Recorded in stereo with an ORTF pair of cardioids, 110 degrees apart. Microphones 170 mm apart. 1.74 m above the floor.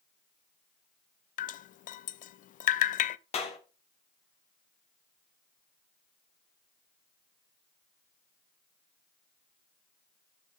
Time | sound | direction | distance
1.4 | dripping | 50° left | 0.6 m
3.3 | a clap | 40° left | 3 m